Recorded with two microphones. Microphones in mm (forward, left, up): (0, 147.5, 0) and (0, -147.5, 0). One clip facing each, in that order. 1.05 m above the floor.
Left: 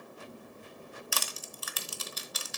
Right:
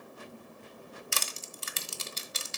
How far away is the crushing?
About 0.8 m.